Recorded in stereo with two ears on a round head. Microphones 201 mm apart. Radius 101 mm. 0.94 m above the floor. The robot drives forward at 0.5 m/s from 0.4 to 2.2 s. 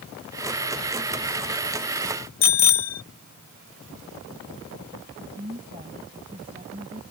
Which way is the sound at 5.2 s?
25° right (ahead or behind).